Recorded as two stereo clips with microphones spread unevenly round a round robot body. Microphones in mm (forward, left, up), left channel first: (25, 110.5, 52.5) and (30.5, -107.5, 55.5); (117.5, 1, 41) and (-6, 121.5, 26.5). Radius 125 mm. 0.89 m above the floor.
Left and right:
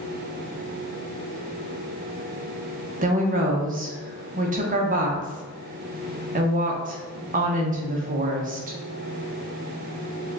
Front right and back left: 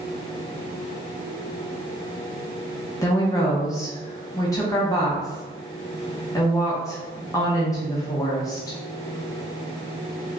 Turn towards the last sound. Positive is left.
turn(degrees=-115)